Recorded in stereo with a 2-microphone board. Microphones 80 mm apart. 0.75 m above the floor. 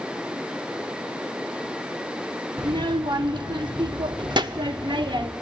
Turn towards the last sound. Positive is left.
turn(degrees=-65)  # may be behind; listen again after turning